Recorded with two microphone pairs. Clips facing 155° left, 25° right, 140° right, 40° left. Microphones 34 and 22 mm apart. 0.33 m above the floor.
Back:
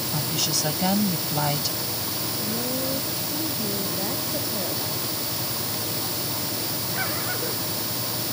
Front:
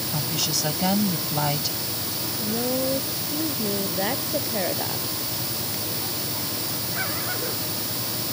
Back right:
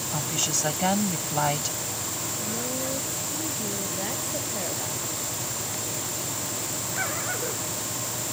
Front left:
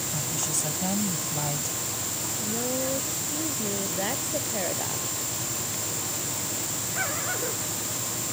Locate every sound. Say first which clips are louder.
0.1 s a woman speaking: even, back right 5 dB; 115° right
2.4 s a woman speaking: front 5 dB, front left 3 dB; 25° right